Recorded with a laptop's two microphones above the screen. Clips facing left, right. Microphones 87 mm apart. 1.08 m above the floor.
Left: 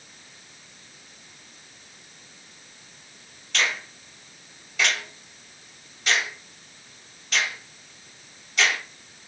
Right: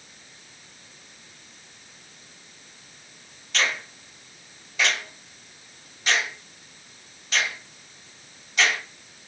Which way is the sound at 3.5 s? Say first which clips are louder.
Even; 5° right (ahead or behind).